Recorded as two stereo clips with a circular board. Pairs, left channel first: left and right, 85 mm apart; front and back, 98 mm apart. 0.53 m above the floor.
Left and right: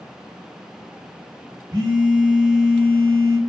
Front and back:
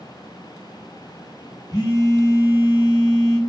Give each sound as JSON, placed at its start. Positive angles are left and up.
{"t": 1.7, "sound": "a phone buzzing", "azimuth_deg": -50, "distance_m": 0.8}